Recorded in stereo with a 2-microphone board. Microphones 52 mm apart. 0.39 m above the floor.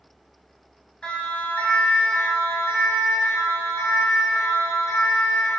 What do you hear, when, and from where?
1.0 s a siren: 20° left (ahead or behind), 4 m; by 5.5 s 75° left (ahead or behind), 7 m